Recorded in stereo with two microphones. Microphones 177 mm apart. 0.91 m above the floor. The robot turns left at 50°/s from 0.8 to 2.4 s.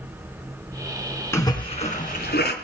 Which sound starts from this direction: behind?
A splash, at 1.3 s.